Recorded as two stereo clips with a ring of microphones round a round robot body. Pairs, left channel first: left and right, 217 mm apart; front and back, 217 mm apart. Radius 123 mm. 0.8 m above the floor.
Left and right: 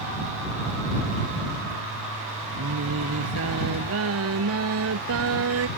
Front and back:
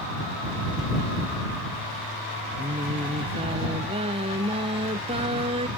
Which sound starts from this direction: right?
Singing, at 2.6 s.